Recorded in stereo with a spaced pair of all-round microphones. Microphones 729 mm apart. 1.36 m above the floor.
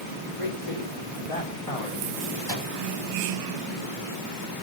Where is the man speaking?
45° left (ahead or behind), 4.5 m; by 2.0 s 55° left (ahead or behind), 4 m.